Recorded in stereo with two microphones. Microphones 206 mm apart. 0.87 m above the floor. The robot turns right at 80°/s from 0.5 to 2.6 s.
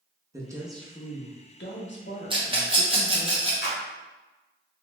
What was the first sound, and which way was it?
A woman speaking, 15° right.